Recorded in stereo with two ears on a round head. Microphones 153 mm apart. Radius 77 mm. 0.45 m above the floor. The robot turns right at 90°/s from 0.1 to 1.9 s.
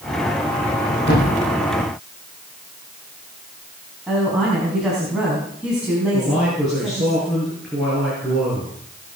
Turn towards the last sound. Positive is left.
turn(degrees=0)  # may be behind; listen again after turning